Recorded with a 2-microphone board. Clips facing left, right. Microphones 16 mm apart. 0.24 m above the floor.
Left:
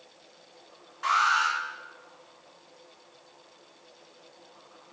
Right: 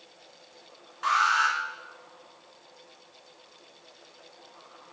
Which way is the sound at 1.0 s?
10° right (ahead or behind).